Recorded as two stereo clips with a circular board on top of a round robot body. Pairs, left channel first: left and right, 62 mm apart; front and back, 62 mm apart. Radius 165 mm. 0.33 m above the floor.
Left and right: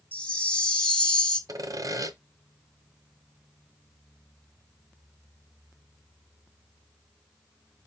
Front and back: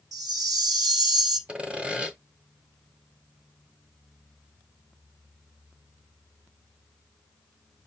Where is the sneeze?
No sneeze in this recording.